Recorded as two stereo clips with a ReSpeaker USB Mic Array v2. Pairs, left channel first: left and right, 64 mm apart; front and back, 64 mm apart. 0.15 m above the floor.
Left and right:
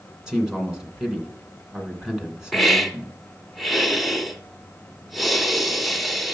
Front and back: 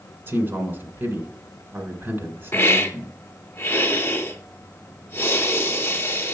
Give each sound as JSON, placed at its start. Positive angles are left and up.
{"t": 0.3, "sound": "a man speaking", "azimuth_deg": -165, "distance_m": 2.0}
{"t": 2.5, "sound": "a hiss", "azimuth_deg": 0, "distance_m": 1.0}